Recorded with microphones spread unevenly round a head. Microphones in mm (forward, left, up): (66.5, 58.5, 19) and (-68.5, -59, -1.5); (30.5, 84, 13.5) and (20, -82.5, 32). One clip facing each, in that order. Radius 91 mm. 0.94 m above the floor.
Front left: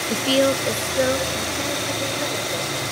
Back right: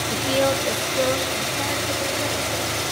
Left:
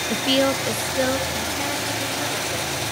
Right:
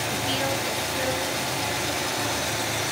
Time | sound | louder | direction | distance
0.1 | a woman speaking | front left 3 dB, left 10 dB | 90° left | 1.2 m